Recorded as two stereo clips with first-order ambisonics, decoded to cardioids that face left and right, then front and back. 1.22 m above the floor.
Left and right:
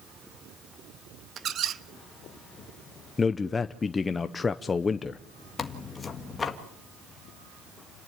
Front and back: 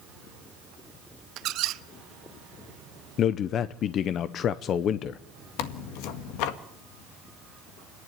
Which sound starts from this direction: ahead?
Tearing paper, at 5.6 s.